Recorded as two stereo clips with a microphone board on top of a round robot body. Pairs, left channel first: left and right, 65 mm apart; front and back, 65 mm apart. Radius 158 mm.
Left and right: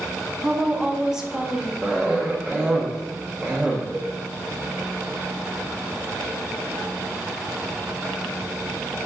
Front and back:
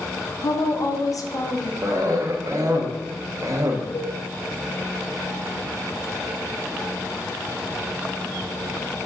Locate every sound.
0.4 s a woman speaking: 10° right, 1.2 m
1.8 s a cough: 160° right, 1.2 m
3.9 s a cowbell: 5° right, 2.5 m